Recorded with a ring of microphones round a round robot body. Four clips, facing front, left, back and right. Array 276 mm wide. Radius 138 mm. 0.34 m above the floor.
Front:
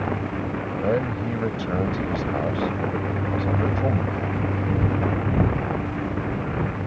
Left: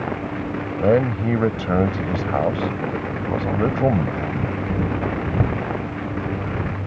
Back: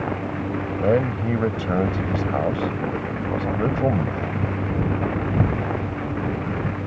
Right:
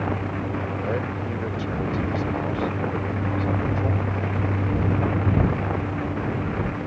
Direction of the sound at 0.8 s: 110° left.